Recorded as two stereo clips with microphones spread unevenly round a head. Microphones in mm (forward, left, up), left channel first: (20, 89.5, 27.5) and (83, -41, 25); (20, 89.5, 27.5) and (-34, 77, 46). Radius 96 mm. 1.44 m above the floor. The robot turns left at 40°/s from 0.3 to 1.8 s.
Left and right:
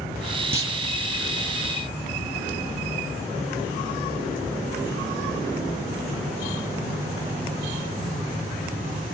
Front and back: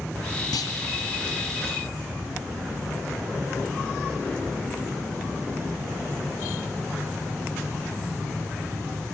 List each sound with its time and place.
0.5 s a clunk: 5° left, 2 m; by 0.8 s 5° right, 2 m